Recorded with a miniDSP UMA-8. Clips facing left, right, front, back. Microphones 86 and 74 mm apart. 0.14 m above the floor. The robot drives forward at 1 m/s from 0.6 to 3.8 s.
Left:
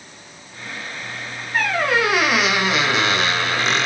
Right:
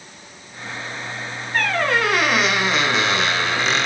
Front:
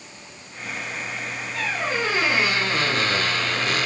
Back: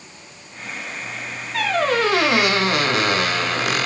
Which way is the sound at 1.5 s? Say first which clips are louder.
Left 1 dB, back 7 dB; 175° left.